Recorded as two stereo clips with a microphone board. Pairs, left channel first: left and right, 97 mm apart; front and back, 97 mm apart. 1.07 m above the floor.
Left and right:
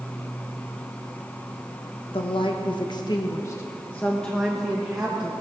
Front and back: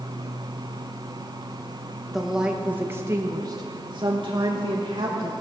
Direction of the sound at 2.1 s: 90° left.